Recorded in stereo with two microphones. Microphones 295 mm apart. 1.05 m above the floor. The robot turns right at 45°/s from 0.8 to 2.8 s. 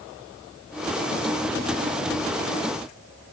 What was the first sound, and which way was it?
Only background noise.